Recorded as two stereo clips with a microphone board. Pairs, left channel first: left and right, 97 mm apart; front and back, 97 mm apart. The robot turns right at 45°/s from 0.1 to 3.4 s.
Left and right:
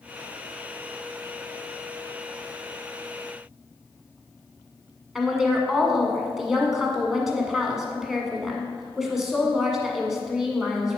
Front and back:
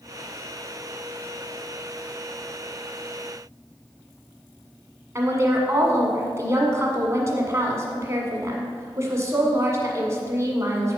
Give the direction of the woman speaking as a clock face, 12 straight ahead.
6 o'clock.